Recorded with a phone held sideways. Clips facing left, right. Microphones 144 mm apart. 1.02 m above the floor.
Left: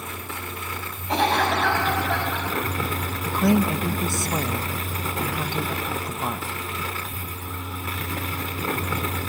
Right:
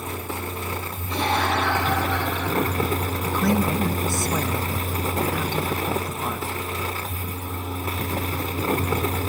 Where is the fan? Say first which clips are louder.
Right 5 dB; 35° right (ahead or behind), 0.7 m.